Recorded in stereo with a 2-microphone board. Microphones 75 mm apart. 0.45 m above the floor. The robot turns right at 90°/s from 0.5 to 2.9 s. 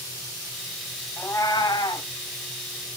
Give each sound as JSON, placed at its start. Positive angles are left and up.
{"t": 1.2, "sound": "a cat meowing", "azimuth_deg": 25, "distance_m": 1.5}